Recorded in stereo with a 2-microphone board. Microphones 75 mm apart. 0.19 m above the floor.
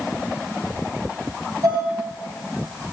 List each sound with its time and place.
1.6 s dishes clattering: 50° right (ahead or behind), 2.5 m